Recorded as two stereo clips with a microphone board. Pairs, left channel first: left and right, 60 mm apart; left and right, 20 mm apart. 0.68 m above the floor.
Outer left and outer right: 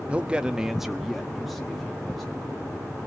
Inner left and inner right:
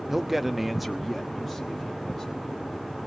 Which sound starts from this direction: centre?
A man speaking, at 0.1 s.